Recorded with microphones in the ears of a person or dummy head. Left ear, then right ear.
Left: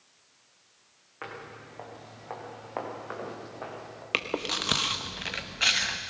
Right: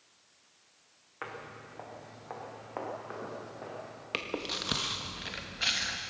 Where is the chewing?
25° left (ahead or behind), 1.1 m.